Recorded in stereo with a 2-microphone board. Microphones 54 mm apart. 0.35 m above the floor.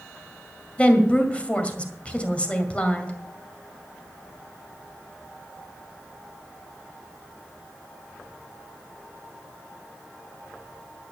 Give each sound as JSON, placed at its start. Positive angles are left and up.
{"t": 0.8, "sound": "a woman speaking", "side_deg": 25, "distance_m": 2.0}